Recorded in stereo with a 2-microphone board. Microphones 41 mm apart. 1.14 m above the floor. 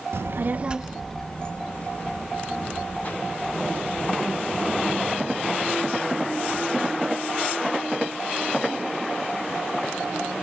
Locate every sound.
0.1 s a child speaking: 75° right (ahead or behind), 0.6 m; by 5.1 s 45° left (ahead or behind), 4 m